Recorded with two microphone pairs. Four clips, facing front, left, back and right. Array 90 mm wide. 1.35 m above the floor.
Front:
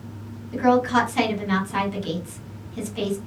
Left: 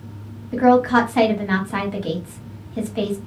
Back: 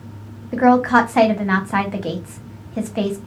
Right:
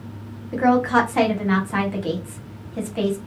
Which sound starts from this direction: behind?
A woman speaking, at 0.5 s.